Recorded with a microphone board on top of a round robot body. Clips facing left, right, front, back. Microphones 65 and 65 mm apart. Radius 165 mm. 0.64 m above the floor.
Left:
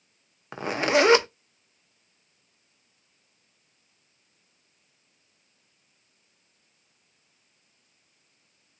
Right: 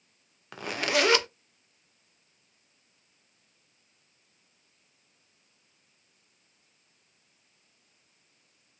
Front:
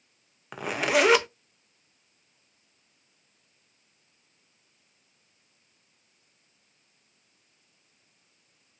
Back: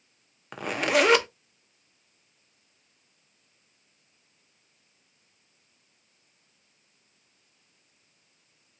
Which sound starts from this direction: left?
A zipper, at 0.5 s.